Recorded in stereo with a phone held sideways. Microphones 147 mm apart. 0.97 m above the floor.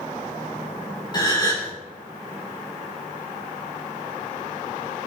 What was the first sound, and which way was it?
A gasp, 30° left (ahead or behind).